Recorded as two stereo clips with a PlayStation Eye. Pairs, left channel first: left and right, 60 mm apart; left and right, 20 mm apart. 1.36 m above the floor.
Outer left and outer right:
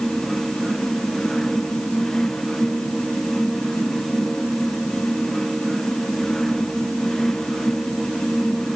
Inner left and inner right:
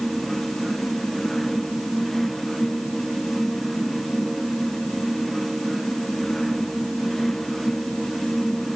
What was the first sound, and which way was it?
Only background noise.